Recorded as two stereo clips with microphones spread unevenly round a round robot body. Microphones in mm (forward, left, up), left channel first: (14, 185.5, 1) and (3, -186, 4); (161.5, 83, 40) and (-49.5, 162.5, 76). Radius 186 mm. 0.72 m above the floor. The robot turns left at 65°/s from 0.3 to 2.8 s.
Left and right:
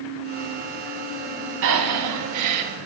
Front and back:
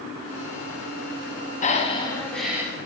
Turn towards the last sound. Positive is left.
turn(degrees=-125)